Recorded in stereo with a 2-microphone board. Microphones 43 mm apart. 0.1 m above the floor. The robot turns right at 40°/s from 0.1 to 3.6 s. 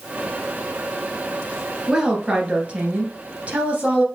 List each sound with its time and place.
1.9 s a woman speaking: 20° right (ahead or behind), 1.7 m; by 4.0 s 30° right (ahead or behind), 1.7 m